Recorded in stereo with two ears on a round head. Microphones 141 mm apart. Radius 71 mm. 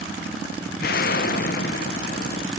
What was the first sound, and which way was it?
An explosion, 65° left (ahead or behind).